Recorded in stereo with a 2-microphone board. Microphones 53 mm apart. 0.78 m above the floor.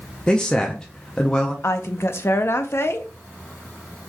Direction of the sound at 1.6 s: 50° left (ahead or behind).